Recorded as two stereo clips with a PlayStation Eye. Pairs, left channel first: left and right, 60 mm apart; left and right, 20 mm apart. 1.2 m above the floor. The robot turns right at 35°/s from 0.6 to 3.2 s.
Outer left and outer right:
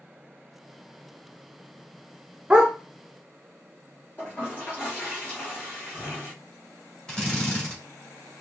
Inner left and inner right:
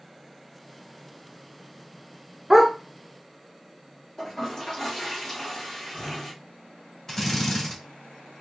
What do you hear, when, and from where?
2.5 s a dog barking: 10° right (ahead or behind), 1.0 m; by 2.7 s 15° right (ahead or behind), 1.0 m
4.2 s a toilet flushing: 35° left (ahead or behind), 3 m
7.1 s a drill: 15° left (ahead or behind), 2.5 m